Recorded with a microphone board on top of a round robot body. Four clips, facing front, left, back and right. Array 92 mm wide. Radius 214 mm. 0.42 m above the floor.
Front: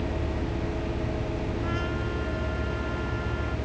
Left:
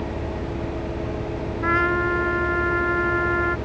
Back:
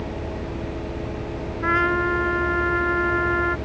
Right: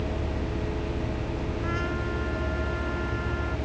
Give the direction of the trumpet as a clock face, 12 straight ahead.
7 o'clock.